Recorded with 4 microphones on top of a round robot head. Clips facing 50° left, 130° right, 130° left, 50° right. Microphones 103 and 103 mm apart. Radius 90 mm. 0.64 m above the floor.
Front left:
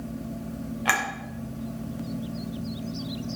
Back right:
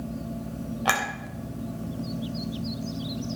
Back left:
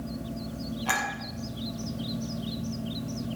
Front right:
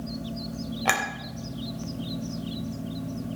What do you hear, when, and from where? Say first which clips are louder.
0.8 s a clink: back right 1 dB, front right 3 dB; 65° right, 2.5 m